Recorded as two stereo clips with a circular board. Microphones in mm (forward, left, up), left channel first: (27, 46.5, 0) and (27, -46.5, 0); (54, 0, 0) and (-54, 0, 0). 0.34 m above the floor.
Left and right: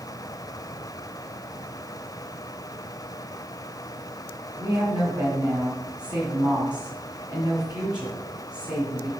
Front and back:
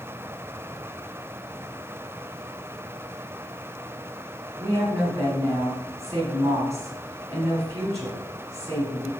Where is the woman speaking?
125° right, 1.9 m.